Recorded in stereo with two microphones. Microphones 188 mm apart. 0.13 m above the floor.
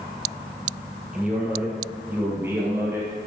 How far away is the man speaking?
About 3 m.